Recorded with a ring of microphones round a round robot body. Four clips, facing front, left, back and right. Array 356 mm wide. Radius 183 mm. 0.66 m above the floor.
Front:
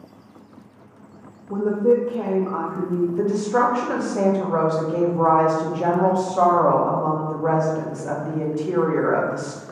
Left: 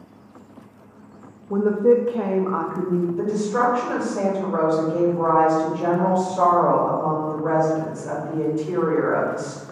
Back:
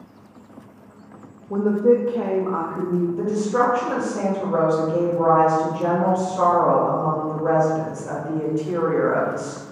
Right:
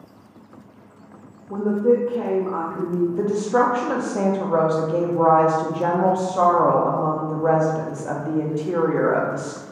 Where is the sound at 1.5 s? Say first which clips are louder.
Left 2 dB, back 1 dB; 105° left, 0.5 m.